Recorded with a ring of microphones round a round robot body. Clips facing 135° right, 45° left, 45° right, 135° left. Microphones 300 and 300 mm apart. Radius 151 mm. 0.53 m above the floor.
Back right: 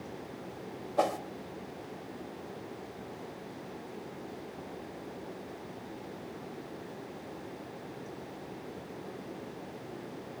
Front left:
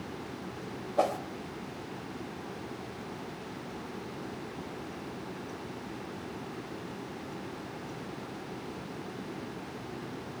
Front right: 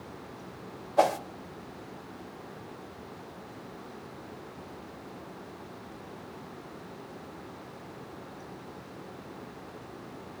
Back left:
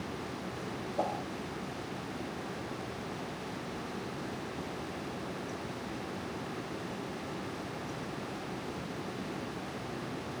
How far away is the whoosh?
About 0.9 m.